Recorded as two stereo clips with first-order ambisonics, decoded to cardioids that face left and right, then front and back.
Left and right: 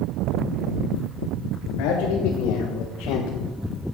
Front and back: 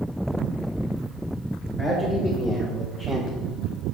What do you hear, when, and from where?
1.8 s a man speaking: 85° left, 3 m; by 3.3 s 110° left, 1.6 m